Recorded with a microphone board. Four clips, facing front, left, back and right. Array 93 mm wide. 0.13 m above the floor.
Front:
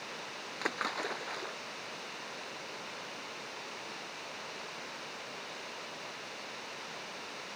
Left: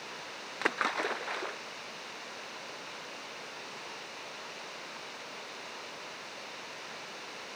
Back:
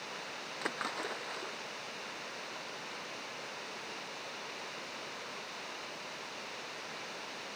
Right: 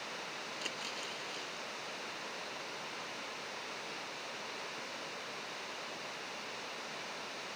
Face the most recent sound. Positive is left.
turn(degrees=80)